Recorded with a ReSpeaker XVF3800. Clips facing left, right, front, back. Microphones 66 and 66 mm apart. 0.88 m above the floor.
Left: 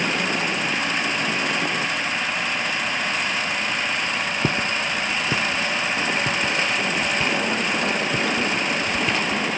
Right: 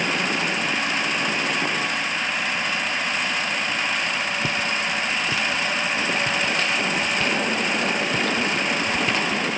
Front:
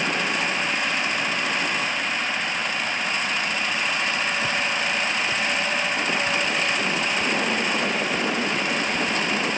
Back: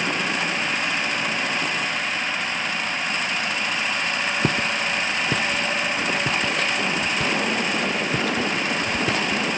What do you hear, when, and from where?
4.4 s footsteps: 145° left; by 9.4 s 175° right